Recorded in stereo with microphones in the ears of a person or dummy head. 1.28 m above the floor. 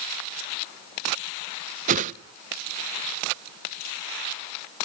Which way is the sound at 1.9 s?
35° right (ahead or behind).